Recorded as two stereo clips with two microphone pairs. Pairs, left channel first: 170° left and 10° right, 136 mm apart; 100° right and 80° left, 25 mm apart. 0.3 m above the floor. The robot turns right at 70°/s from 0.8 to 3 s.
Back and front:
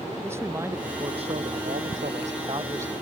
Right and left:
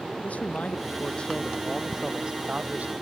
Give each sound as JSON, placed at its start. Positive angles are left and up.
{"t": 0.2, "sound": "a man speaking", "azimuth_deg": -80}